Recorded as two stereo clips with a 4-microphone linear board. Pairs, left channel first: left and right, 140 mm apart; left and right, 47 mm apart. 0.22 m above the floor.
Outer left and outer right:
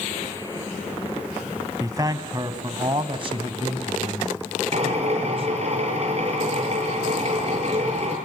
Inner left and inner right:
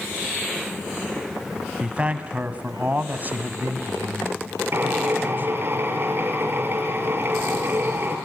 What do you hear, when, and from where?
1.8 s a man speaking: 25° right (ahead or behind), 1.8 m; by 5.7 s 45° right (ahead or behind), 2.5 m
4.7 s a drill: 50° right (ahead or behind), 5.5 m